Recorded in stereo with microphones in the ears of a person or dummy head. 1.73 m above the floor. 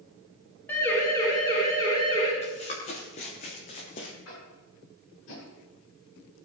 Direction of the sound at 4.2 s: 85° left.